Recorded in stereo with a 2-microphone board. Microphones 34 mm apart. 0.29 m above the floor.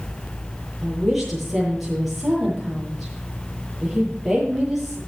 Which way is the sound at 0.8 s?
5° right (ahead or behind).